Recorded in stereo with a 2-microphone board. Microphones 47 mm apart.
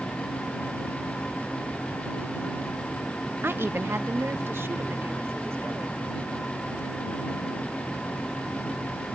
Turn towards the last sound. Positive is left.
turn(degrees=-60)  # may be behind; listen again after turning